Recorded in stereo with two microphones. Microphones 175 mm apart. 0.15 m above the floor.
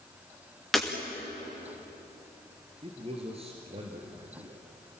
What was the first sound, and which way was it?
Breaking glass, centre (ahead or behind).